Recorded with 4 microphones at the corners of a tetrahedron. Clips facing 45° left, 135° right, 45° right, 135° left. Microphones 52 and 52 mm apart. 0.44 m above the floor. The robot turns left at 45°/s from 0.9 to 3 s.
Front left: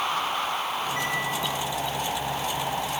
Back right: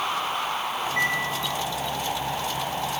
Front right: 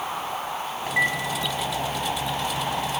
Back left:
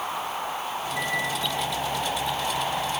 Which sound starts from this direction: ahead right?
A microwave, at 0.9 s.